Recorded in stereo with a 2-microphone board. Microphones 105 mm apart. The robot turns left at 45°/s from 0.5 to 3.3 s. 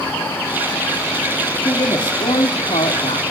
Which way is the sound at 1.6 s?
145° left.